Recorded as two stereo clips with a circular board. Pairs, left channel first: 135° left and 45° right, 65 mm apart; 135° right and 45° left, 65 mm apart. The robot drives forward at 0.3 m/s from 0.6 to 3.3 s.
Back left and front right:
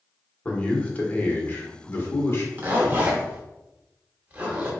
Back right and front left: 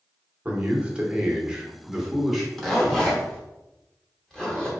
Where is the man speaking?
85° left, 1.0 m; by 2.5 s 130° left, 1.1 m.